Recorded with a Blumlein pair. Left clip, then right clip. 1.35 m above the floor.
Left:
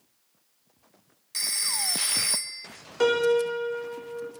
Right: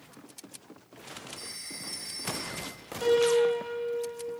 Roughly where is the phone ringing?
Ahead left.